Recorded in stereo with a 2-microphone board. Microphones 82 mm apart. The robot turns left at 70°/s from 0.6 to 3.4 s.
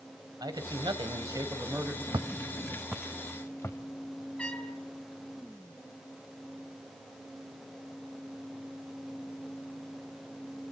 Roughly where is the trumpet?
Centre.